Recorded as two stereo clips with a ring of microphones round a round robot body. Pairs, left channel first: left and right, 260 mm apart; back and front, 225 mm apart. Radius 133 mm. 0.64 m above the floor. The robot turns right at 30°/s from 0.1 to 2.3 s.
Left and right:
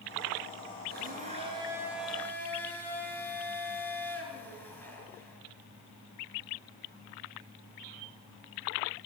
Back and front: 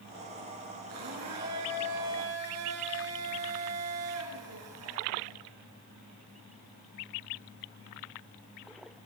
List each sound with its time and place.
0.9 s a blender: 35° right, 7 m; by 5.4 s 5° left, 7 m